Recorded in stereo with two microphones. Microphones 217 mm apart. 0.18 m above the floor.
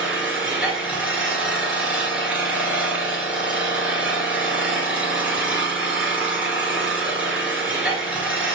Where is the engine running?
5° right (ahead or behind), 1.5 m.